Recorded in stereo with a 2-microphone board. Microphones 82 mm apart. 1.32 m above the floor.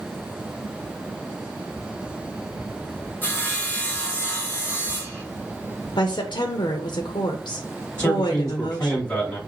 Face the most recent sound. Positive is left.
turn(degrees=35)  # may be behind; listen again after turning